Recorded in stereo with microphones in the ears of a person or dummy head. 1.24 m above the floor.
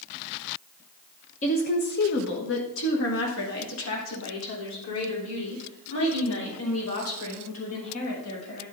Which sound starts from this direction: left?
A woman speaking, at 1.4 s.